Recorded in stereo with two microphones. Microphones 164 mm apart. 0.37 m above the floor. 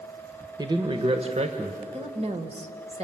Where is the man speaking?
25° right (ahead or behind), 1.2 m; by 1.8 s 50° right (ahead or behind), 1.6 m.